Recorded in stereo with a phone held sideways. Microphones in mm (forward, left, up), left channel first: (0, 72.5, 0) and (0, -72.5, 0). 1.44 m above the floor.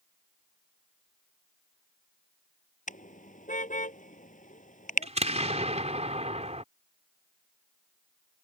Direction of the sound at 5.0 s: 50° right (ahead or behind).